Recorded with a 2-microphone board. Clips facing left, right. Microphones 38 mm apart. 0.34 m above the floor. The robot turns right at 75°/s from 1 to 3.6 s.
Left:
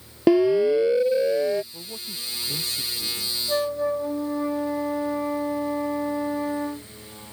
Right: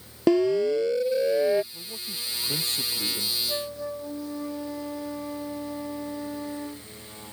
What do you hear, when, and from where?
0.3 s a siren: 15° left (ahead or behind); by 1.6 s 15° right (ahead or behind)
1.7 s a man speaking: 150° left; by 3.4 s 85° right
3.5 s a flute: 30° left (ahead or behind); by 6.9 s 35° left (ahead or behind)